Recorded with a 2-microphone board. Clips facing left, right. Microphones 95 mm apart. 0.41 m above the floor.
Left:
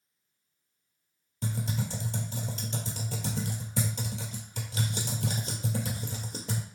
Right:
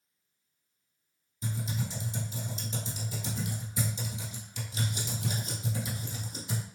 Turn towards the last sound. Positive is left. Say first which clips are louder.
# left 2 dB
turn(degrees=75)  # may be behind; listen again after turning